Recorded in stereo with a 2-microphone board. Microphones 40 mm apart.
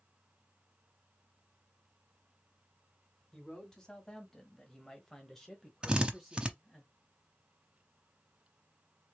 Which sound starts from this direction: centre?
A man speaking, at 3.3 s.